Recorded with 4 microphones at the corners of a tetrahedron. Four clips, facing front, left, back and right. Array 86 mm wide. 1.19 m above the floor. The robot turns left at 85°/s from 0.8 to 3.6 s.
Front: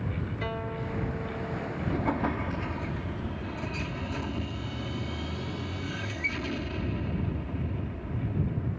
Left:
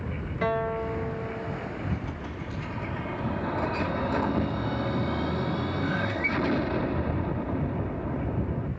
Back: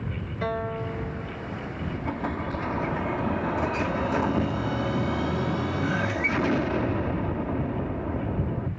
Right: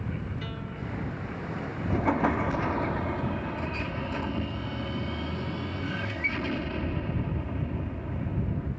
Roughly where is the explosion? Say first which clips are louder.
Right 10 dB, front 2 dB; ahead right.